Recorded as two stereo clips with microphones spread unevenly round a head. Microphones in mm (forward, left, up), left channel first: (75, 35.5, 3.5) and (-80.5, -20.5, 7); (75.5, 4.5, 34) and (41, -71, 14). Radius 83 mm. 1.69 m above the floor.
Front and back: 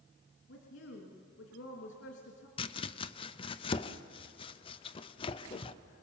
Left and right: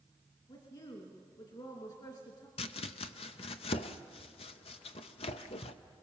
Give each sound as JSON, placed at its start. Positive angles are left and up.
{"t": 0.5, "sound": "a woman speaking", "azimuth_deg": 35, "distance_m": 3.0}
{"t": 2.6, "sound": "chopping", "azimuth_deg": 80, "distance_m": 0.7}